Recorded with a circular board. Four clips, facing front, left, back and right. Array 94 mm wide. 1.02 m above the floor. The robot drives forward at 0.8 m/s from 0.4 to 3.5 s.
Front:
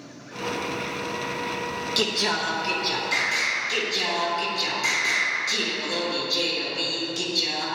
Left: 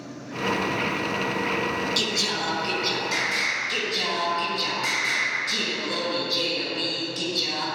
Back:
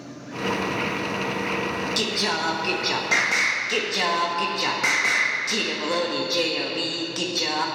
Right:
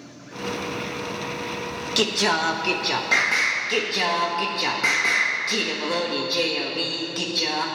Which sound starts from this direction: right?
Singing, at 2.0 s.